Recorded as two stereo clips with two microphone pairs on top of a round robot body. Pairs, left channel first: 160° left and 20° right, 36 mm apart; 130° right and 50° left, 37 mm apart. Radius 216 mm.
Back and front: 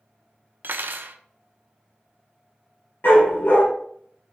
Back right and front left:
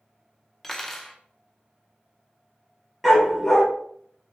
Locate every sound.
0.6 s cutlery clinking: 40° right, 0.7 m
3.0 s a dog barking: 140° left, 4.5 m